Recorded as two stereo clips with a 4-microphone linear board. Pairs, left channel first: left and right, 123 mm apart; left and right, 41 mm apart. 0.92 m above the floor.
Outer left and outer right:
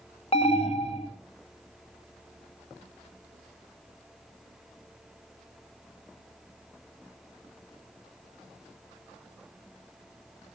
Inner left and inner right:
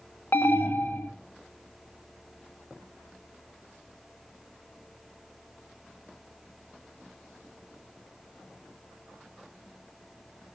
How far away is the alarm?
About 1.6 m.